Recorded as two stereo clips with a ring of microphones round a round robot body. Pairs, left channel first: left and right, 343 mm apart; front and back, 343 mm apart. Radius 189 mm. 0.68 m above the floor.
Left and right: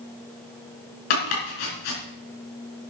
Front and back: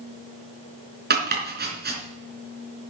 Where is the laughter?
No laughter in this recording.